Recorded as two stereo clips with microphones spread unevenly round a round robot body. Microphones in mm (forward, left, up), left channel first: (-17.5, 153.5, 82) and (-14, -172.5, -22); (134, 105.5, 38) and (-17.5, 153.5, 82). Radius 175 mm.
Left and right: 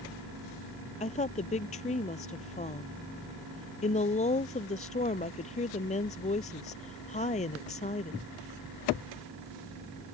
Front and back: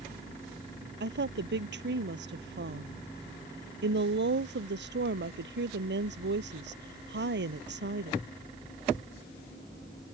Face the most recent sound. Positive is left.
turn(degrees=160)